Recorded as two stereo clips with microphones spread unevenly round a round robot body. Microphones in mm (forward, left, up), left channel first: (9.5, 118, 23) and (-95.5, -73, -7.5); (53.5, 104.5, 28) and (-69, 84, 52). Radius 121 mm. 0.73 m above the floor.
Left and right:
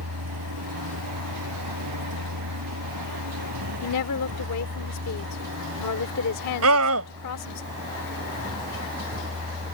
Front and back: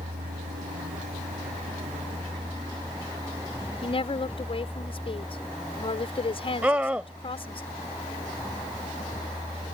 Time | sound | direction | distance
0.0 | a vehicle | 130° right | ?
3.8 | a woman speaking | 45° left | ?
6.6 | a scream | 85° right | ?